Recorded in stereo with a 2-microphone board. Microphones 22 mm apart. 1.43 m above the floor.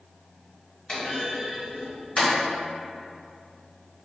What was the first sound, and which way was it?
A clunk, 45° left (ahead or behind).